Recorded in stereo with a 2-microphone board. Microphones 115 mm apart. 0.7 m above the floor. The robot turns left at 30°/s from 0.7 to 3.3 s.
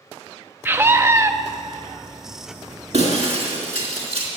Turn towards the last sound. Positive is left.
turn(degrees=-60)  # may be behind; listen again after turning